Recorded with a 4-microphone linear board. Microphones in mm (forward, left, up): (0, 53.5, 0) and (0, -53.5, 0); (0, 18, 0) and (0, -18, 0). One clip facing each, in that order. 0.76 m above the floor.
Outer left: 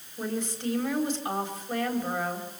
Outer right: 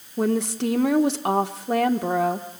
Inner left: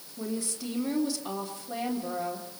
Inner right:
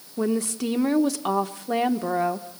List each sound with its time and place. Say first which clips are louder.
0.2 s a woman speaking: outer right 9 dB, inner right 9 dB; 75° right (ahead or behind), 1.4 m